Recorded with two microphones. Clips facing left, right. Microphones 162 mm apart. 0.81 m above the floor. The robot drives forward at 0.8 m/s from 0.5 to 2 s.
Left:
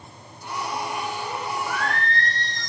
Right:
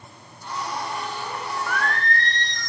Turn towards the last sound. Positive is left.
turn(degrees=30)  # may be behind; listen again after turning